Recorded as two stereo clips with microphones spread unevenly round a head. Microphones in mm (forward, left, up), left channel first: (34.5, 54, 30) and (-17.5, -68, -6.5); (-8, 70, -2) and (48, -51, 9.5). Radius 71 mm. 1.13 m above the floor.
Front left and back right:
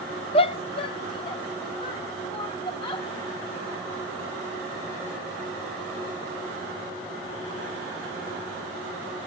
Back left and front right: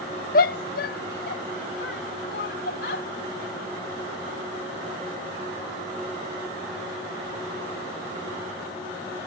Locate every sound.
0.3 s a shout: 125° left; by 3.1 s 130° left